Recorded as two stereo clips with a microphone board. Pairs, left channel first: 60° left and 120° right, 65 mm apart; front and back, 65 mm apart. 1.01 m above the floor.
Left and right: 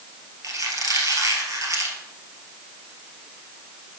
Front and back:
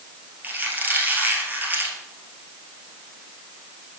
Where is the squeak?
125° right, 1.8 m.